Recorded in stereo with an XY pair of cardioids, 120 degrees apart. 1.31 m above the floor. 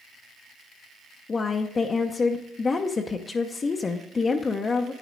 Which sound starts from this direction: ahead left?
A woman speaking, at 1.3 s.